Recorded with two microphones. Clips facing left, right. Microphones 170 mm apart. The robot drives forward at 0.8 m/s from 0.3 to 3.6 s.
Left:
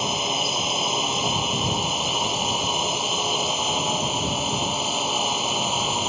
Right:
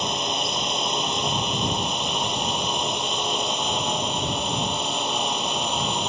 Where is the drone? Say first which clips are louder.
Left 1 dB; 5° left (ahead or behind).